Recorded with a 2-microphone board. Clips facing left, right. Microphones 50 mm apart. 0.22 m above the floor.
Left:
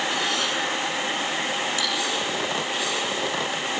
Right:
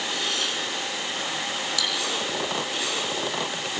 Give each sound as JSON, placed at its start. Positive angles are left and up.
{"t": 1.8, "sound": "cutlery clinking", "side_deg": 30, "distance_m": 8.0}